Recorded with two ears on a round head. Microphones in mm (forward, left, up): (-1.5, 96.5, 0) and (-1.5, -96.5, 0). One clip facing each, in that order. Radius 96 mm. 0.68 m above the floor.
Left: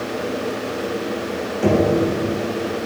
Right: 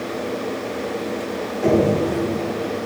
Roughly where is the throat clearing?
I don't hear throat clearing.